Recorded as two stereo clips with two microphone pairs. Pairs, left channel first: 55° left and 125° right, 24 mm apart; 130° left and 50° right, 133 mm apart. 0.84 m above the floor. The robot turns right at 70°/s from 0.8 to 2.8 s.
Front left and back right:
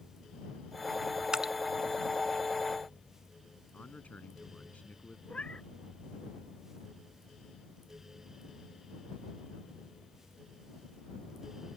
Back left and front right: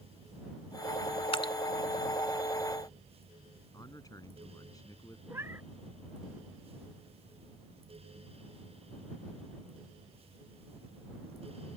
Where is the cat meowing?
20° left.